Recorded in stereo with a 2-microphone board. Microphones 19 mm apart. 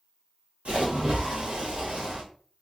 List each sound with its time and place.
0.7 s a splash: 70° right (ahead or behind), 1.3 m